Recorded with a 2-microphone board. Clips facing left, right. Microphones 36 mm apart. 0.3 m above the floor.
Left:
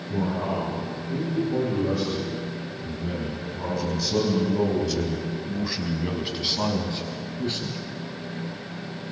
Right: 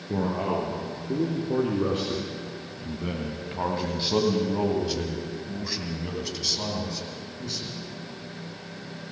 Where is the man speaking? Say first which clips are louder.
Even; 75° right (ahead or behind), 6 m; by 7.8 s 45° left (ahead or behind), 4.5 m.